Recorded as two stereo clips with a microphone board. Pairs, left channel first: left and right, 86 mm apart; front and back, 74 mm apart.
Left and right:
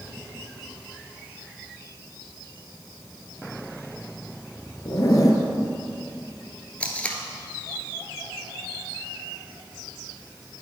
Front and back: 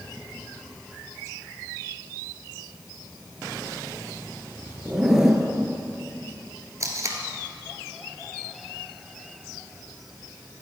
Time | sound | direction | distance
4.8 | a zipper | 100° left | 1.3 m
6.8 | tape being pulled | 160° left | 1.4 m